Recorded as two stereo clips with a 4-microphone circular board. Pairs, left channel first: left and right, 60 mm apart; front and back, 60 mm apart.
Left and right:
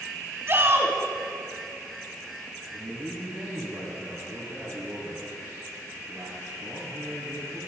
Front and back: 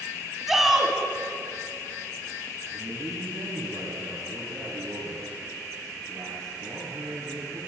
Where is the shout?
95° right, 1.8 m.